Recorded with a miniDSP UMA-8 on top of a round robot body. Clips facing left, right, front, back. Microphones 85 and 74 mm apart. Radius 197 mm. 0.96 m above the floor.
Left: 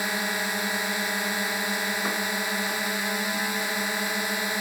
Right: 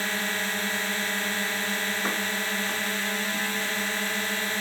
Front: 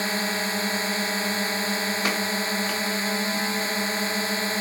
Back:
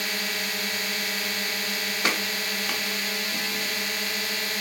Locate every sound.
0.0 s a drone: 25° left